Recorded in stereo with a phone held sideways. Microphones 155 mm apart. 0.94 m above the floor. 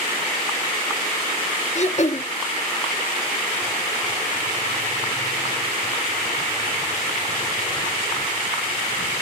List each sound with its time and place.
1.8 s throat clearing: 45° left (ahead or behind), 0.7 m